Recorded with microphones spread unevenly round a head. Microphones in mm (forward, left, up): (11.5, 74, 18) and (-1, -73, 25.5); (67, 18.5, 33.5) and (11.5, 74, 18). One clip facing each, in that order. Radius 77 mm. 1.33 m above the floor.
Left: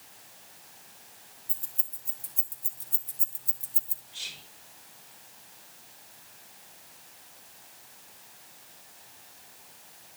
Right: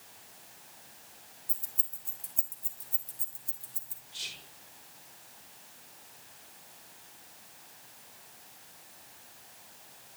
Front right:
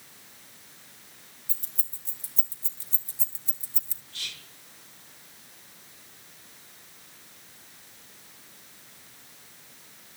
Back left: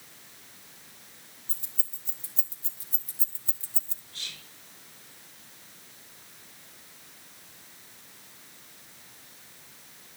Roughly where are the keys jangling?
Ahead.